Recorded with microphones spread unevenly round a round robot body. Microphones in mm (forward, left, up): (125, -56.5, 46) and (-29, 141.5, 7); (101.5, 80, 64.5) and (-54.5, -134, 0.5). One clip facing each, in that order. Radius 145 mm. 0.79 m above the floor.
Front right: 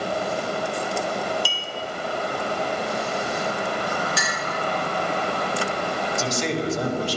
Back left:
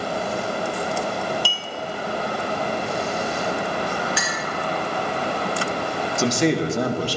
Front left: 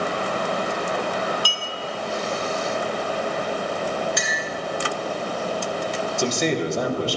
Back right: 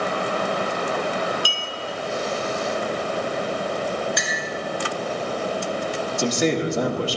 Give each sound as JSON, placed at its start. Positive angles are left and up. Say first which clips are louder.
{"t": 1.4, "sound": "a clink", "louder": "back left 1 dB, back right 1 dB", "azimuth_deg": 165, "distance_m": 1.7}
{"t": 4.2, "sound": "a clink", "louder": "back left 1 dB, even", "azimuth_deg": -5, "distance_m": 3.0}
{"t": 6.2, "sound": "a man speaking", "louder": "back left 8 dB, back right 2 dB", "azimuth_deg": 155, "distance_m": 1.4}